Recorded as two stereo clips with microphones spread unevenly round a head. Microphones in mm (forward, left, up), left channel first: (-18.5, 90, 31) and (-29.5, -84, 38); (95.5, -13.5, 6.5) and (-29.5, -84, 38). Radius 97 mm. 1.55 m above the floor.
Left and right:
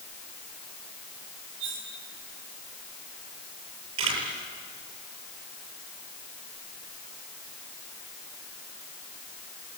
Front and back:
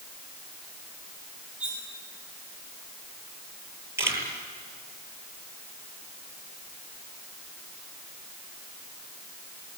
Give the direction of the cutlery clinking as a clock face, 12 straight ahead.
2 o'clock.